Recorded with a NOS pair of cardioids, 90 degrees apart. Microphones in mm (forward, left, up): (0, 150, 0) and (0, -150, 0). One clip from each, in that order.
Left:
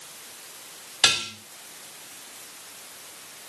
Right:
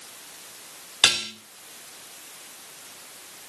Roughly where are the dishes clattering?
Ahead right.